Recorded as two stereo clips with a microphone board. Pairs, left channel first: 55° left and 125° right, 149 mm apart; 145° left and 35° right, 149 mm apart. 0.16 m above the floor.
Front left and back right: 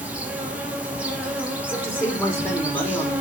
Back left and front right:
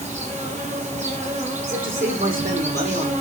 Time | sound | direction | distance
0.0 | an insect | 45° right | 3.5 m
1.6 | a man speaking | 25° right | 6.5 m